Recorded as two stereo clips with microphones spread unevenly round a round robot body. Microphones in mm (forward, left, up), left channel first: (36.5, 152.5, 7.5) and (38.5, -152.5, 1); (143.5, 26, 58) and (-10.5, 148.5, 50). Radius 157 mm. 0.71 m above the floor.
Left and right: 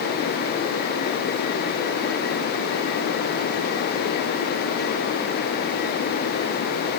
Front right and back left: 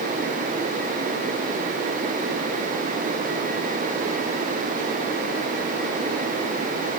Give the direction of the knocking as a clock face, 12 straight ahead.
No knocking in this recording.